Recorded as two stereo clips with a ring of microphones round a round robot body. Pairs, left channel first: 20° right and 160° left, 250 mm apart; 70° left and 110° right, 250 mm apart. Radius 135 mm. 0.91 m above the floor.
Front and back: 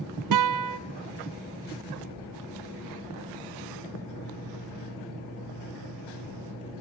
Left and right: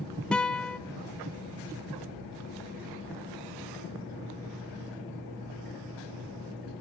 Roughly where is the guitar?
Behind left.